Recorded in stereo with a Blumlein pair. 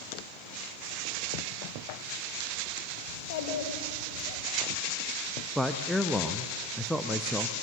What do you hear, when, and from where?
3.1 s a child speaking: 50° left, 3.5 m
5.5 s a man speaking: straight ahead, 1.0 m